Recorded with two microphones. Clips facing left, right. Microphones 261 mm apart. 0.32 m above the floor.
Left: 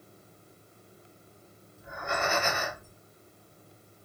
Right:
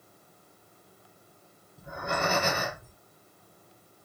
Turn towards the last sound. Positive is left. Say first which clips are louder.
# right 2 dB
turn(degrees=-40)  # may be behind; listen again after turning